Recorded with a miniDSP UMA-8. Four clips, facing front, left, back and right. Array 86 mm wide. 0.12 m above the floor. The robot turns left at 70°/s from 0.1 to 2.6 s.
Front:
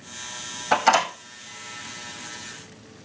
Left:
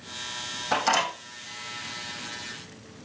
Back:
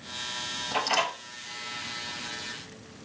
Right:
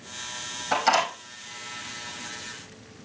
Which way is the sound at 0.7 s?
5° left.